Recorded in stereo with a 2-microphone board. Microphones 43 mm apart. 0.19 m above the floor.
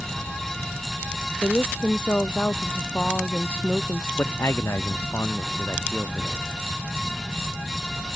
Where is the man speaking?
80° left.